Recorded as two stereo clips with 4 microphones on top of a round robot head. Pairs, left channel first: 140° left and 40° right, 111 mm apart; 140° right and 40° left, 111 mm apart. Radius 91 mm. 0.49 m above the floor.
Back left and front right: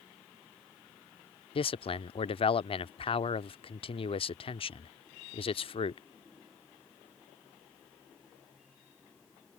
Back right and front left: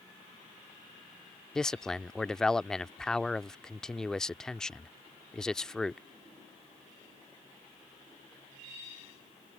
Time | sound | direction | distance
1.6 | a man speaking | 140° left | ?